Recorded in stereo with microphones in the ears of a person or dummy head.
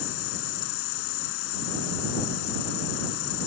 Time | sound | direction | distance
0.0 | an insect | 70° left (ahead or behind) | ?